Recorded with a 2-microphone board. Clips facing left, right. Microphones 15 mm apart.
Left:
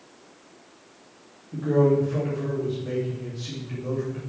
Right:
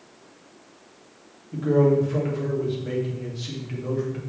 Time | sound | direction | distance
1.5 | a man speaking | 20° right (ahead or behind) | 2.5 m